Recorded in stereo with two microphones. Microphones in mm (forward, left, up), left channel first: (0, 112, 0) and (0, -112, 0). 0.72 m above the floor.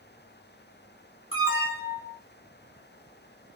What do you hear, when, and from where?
1.3 s an alarm: 60° left (ahead or behind), 2 m